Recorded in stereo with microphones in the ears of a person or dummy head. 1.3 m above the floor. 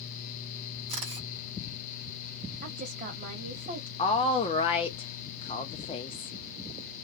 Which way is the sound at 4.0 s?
25° left (ahead or behind).